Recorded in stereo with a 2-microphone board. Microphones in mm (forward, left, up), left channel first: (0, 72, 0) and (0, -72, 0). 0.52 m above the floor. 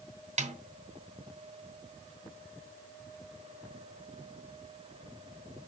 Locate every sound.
0.4 s a snare drum: 50° right (ahead or behind), 2.5 m